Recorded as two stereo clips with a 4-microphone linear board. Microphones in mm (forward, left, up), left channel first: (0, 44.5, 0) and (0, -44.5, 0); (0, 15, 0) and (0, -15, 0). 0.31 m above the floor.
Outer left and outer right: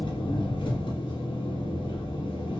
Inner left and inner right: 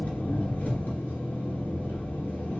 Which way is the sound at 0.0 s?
80° left.